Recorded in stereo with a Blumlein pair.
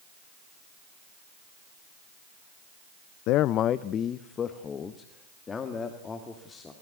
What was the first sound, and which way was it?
A man speaking, 40° left.